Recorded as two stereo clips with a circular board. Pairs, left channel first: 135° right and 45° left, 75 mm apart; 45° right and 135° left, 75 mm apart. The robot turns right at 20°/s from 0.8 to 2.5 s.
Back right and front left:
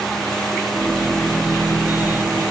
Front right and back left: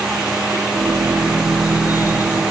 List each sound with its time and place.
Only background noise.